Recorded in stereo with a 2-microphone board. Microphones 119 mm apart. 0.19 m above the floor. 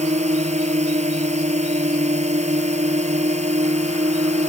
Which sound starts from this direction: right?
A drone, at 0.0 s.